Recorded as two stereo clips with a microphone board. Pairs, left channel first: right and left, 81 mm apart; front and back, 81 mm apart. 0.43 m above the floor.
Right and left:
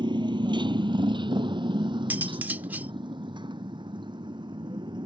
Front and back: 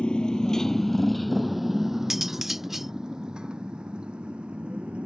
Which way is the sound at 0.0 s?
75° left.